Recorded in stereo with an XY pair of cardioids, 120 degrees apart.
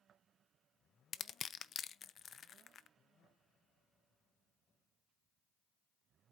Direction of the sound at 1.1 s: 45° left.